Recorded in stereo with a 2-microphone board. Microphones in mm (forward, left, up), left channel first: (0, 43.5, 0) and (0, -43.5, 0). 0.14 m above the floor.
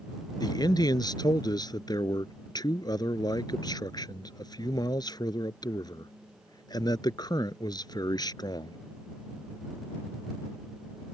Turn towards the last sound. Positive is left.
turn(degrees=50)  # may be behind; listen again after turning